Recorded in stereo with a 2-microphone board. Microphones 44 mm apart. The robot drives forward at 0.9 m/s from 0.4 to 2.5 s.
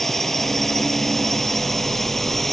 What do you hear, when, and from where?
0.0 s a drone: 5° left (ahead or behind)